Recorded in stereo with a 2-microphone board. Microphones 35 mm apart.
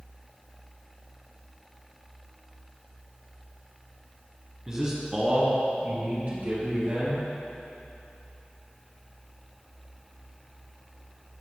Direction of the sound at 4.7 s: 15° right (ahead or behind).